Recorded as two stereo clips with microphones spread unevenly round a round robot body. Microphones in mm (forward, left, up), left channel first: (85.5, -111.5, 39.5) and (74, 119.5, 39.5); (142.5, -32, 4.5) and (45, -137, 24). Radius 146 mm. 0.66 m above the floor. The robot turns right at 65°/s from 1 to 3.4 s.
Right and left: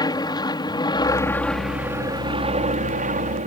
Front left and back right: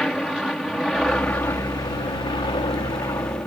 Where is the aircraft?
35° right; by 3.5 s 115° left.